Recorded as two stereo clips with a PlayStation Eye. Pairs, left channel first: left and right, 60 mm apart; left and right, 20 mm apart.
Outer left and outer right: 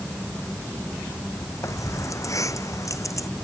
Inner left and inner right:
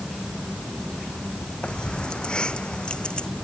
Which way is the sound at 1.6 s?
60° left (ahead or behind).